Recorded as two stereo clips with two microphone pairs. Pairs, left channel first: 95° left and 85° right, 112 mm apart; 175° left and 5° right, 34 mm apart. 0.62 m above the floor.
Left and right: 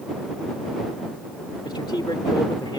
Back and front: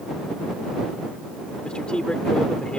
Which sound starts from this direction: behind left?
A man speaking, at 1.6 s.